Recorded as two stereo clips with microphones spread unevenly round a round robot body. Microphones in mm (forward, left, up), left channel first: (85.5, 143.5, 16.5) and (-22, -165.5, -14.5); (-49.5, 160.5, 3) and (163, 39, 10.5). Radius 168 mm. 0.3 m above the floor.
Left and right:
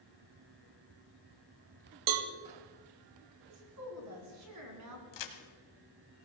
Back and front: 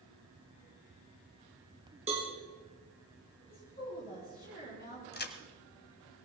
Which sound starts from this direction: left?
A crack, at 5.1 s.